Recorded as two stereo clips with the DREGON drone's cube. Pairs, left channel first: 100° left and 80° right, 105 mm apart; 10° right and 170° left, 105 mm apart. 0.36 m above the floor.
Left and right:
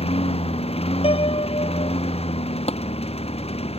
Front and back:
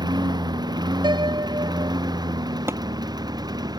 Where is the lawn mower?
120° left.